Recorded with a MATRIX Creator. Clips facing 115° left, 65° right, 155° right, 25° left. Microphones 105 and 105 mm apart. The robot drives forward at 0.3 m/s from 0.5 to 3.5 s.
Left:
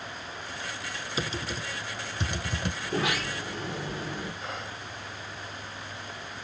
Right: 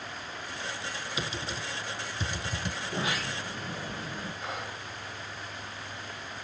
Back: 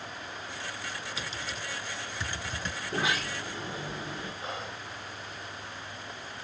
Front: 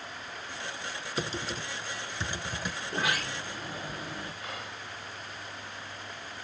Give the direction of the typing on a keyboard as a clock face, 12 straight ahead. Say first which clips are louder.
Left 4 dB, front 4 dB; 10 o'clock.